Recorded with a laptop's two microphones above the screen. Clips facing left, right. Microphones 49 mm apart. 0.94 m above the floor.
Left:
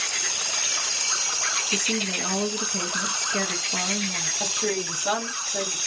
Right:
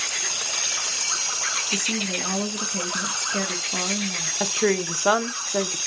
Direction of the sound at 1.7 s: Centre (ahead or behind).